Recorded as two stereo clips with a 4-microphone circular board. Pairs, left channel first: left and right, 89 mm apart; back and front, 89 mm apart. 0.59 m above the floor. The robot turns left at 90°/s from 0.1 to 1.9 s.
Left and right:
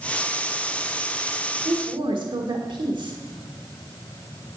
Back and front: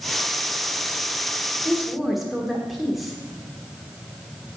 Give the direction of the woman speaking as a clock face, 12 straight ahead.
2 o'clock.